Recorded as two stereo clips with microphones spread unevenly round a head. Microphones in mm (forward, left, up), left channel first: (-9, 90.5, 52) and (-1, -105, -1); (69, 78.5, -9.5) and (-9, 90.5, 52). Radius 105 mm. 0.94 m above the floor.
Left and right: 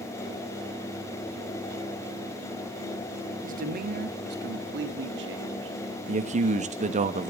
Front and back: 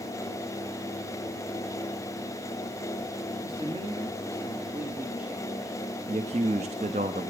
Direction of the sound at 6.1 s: 135° right.